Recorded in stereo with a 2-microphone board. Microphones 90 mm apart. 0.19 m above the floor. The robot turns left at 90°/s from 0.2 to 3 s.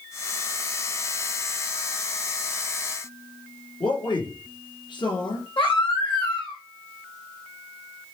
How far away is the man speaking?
About 3 m.